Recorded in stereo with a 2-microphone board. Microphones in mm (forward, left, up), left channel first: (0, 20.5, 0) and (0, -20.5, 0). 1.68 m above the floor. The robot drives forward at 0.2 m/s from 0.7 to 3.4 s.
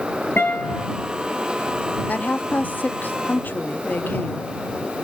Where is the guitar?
65° left (ahead or behind), 3.5 m.